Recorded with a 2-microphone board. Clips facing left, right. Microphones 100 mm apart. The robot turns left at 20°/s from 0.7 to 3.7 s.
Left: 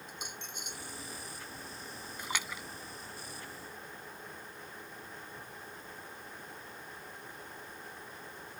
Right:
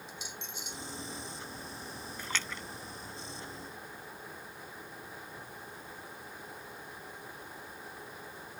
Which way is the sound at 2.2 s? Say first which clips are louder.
Left 1 dB; 15° left (ahead or behind).